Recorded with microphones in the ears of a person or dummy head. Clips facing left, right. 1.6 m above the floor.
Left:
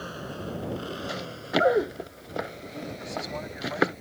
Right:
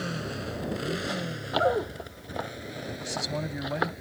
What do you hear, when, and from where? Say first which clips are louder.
0.0 s a motorcycle: right 2 dB; 30° right (ahead or behind); by 4.0 s 10° right (ahead or behind)
1.1 s running footsteps: left 2 dB; 25° left (ahead or behind); by 4.0 s 35° left (ahead or behind)
3.0 s a man speaking: right 4 dB; 35° right (ahead or behind)